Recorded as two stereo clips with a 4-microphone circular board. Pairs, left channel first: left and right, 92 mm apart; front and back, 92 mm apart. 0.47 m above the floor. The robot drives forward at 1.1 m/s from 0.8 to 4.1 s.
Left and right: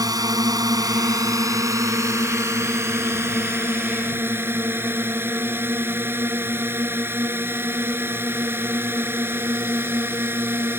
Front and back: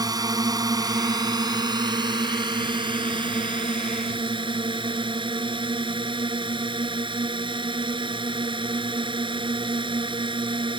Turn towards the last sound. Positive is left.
turn(degrees=-155)